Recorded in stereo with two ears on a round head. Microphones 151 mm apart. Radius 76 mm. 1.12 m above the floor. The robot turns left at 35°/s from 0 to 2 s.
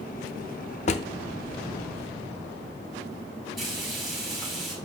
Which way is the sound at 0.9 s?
40° left (ahead or behind).